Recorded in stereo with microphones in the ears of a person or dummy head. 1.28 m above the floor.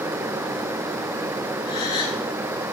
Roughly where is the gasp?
Left.